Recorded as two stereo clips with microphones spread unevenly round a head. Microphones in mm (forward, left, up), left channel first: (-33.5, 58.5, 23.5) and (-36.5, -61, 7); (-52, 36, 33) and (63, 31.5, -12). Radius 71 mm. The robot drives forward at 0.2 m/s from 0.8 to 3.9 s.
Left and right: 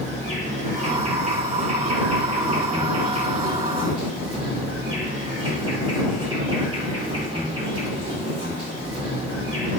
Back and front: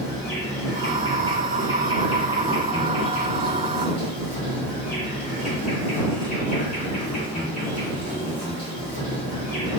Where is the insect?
105° right, 1.2 m; by 9.8 s 130° right, 1.5 m.